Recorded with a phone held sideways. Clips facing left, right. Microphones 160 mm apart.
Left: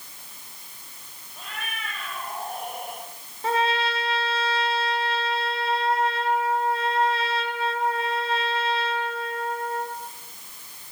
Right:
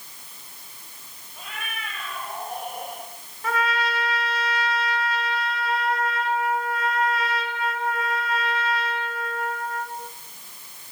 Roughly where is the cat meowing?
Centre.